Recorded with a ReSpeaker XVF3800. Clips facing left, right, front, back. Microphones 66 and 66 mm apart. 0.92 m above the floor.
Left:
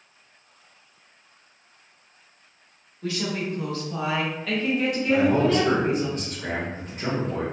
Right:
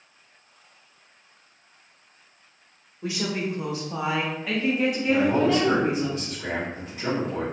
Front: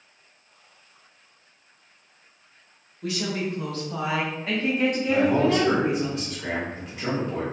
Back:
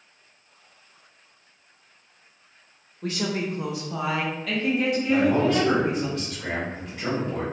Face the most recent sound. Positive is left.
turn(degrees=70)